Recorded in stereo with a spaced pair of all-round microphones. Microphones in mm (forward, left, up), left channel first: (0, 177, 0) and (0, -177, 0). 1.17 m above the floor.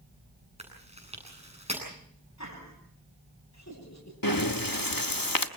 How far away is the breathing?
About 1.3 m.